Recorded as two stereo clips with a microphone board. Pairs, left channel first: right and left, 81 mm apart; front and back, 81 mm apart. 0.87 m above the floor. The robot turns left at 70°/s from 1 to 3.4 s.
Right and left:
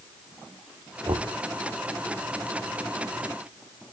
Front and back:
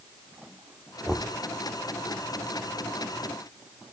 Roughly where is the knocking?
Left.